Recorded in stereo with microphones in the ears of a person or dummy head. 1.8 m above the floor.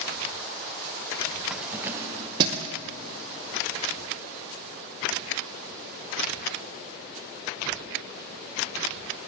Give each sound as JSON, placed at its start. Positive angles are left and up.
{"t": 1.5, "sound": "keys jangling", "side_deg": 0, "distance_m": 1.1}